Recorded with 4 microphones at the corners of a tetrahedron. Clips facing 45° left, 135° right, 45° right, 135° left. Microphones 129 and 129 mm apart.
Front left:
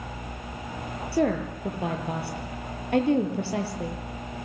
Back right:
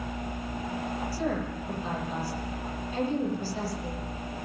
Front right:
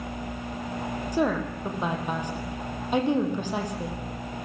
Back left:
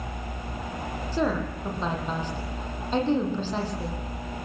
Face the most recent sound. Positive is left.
turn(degrees=30)